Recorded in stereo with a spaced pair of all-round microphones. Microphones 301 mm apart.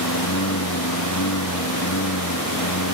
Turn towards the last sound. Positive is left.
turn(degrees=75)  # may be behind; listen again after turning